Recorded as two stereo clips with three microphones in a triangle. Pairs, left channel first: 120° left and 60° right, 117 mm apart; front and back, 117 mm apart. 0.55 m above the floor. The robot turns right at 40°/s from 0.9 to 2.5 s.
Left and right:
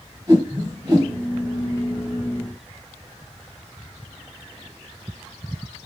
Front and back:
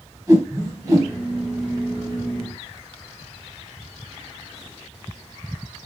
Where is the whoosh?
120° right, 2 m; by 1.1 s 110° right, 2 m.